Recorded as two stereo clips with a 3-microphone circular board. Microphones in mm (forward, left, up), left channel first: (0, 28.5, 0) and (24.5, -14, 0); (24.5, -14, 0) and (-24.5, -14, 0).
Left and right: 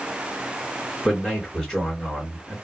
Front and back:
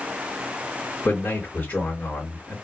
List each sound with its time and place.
1.1 s a man speaking: 45° left, 2.5 m